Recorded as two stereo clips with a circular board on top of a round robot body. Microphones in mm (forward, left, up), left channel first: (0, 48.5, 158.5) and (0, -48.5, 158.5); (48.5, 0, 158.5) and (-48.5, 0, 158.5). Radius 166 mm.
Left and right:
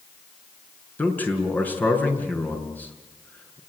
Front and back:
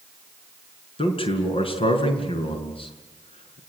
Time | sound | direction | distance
1.0 | a man speaking | 20° left | 5.5 m